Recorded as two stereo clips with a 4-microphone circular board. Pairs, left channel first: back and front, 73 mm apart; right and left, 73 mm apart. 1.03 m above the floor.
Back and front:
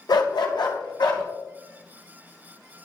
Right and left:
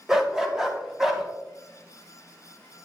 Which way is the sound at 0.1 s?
175° left.